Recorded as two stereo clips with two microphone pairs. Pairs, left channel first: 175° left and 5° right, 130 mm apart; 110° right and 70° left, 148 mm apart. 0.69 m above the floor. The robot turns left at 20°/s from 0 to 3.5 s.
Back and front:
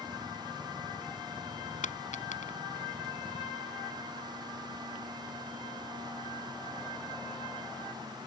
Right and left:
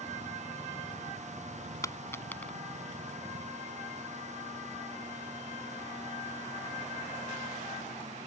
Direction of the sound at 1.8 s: Straight behind.